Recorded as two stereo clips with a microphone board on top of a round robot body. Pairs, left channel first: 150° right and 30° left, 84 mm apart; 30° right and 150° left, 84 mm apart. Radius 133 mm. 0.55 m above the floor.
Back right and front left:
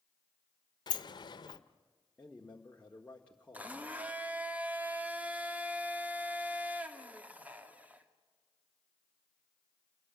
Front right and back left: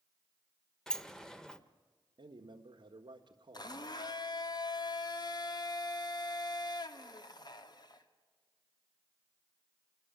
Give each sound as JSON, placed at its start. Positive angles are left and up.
{"t": 0.9, "sound": "a sliding door", "azimuth_deg": -110, "distance_m": 0.9}
{"t": 2.2, "sound": "a man speaking", "azimuth_deg": 135, "distance_m": 1.6}
{"t": 3.5, "sound": "a blender", "azimuth_deg": -40, "distance_m": 1.9}